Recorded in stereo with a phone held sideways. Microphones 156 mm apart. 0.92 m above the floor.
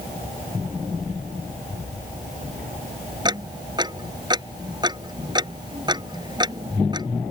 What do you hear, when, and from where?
3.2 s ticking: 30° right (ahead or behind)